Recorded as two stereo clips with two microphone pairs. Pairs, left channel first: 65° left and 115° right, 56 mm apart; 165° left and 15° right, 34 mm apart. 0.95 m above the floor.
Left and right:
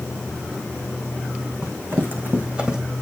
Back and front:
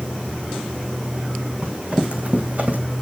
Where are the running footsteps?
70° right, 3 m; by 2.8 s 40° right, 2 m.